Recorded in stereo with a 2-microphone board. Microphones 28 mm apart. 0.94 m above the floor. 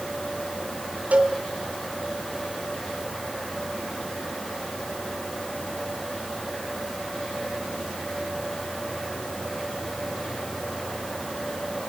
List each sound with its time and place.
1.1 s a cowbell: 70° right (ahead or behind), 3 m